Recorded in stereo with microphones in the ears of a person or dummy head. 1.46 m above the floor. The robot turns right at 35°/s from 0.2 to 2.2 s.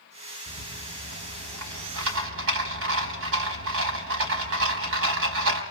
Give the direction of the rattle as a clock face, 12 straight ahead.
5 o'clock.